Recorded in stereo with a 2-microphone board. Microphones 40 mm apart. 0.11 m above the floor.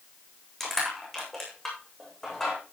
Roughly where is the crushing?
Centre.